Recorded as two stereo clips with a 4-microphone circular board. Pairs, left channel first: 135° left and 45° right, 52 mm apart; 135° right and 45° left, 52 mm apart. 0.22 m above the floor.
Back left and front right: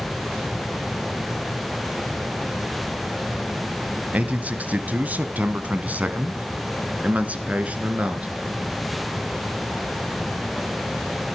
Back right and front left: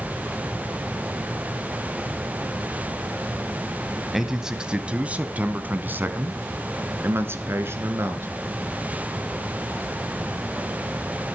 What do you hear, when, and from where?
4.1 s a man speaking: 35° right, 1.1 m; by 8.3 s 15° left, 2.5 m